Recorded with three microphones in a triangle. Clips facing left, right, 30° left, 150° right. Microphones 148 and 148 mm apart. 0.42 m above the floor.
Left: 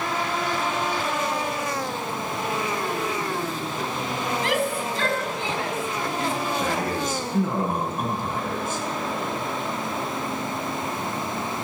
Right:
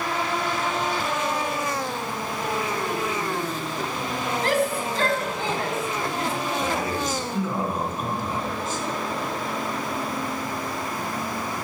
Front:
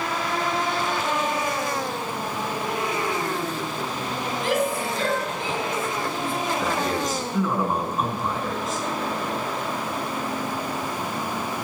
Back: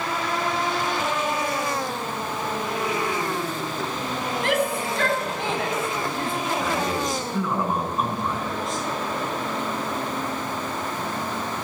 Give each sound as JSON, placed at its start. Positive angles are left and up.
{"t": 4.4, "sound": "a shout", "azimuth_deg": -135, "distance_m": 3.0}
{"t": 6.6, "sound": "a man speaking", "azimuth_deg": 120, "distance_m": 5.0}